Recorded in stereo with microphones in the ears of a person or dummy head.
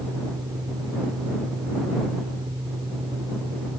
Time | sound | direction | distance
0.0 | a fan | 20° right (ahead or behind) | ?